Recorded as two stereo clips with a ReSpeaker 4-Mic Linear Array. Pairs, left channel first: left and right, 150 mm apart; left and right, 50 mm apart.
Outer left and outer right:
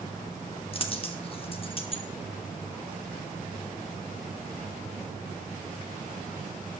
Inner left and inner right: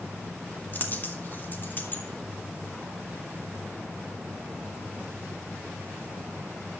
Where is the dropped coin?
40° left (ahead or behind), 1.2 m.